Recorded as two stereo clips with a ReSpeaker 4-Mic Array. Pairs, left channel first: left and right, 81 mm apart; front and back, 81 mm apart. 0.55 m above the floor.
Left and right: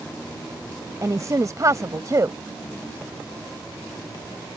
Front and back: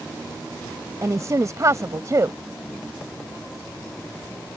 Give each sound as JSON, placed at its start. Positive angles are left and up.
{"t": 1.0, "sound": "a woman speaking", "azimuth_deg": -135}